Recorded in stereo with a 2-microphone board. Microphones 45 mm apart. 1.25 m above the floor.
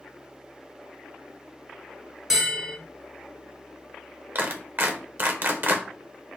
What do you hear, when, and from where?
2.3 s a bell: 10° right (ahead or behind), 1.2 m
4.3 s a clap: 45° right (ahead or behind), 0.8 m